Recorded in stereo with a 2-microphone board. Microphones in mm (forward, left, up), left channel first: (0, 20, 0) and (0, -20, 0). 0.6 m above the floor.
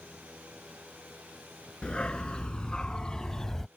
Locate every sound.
1.8 s a dog barking: 25° left (ahead or behind); by 3.7 s 10° left (ahead or behind)